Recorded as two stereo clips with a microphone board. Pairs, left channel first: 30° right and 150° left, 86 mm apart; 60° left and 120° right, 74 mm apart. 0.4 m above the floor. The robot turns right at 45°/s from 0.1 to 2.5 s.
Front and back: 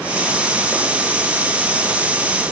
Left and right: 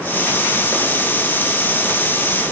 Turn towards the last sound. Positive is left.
No sound to turn to.